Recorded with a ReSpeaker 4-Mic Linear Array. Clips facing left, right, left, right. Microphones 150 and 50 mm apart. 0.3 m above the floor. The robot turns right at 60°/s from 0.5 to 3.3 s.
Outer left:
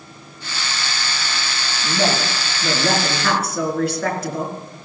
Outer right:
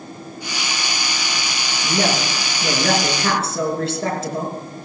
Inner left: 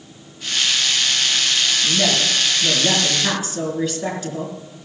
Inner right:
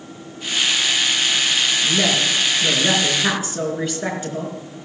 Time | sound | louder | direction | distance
1.8 | a woman speaking | even, even | 115° right | 4 m